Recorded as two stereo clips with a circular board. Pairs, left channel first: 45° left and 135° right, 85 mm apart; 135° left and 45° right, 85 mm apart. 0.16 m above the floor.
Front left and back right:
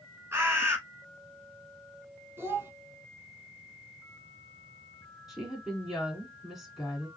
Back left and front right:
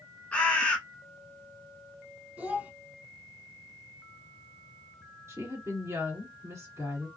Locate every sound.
0.3 s a bird: 165° right, 0.8 m
2.4 s a child speaking: 100° right, 0.7 m
5.3 s a woman speaking: 50° right, 1.9 m